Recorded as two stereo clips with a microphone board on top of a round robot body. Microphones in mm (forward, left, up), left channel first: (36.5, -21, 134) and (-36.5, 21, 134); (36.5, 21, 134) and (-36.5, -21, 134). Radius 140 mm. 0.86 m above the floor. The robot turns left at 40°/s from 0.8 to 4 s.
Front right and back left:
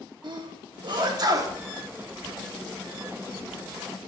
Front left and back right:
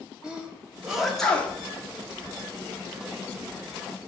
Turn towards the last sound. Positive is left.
turn(degrees=0)